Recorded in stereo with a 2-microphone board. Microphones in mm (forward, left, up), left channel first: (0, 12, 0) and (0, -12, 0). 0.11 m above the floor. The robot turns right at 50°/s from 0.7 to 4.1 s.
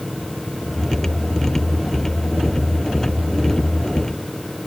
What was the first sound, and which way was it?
Only background noise.